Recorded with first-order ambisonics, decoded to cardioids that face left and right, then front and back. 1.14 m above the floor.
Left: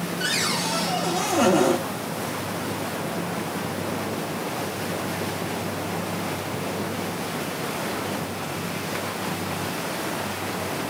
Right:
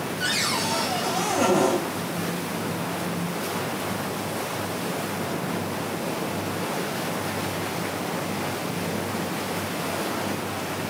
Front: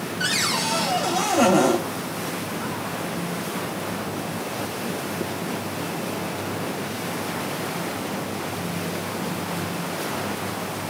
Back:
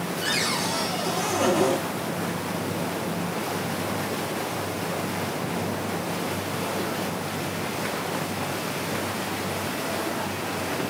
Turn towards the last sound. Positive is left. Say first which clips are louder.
# even, front 3 dB
turn(degrees=20)